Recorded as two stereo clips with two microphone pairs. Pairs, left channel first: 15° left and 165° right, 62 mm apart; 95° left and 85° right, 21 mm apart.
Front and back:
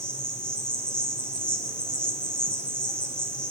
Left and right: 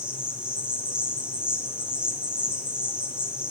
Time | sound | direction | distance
0.0 | an insect | 55° right | 5.5 m